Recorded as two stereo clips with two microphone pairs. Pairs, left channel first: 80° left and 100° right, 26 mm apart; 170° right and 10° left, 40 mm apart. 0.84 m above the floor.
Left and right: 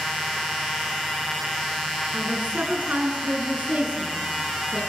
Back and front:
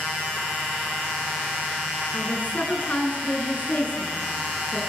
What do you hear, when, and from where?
2.1 s a woman speaking: 125° right, 9 m